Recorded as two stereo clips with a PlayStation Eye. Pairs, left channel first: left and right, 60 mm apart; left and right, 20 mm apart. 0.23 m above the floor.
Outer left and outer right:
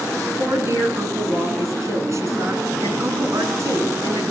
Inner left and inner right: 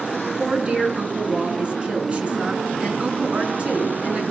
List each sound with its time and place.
0.4 s a woman speaking: 55° right (ahead or behind), 3 m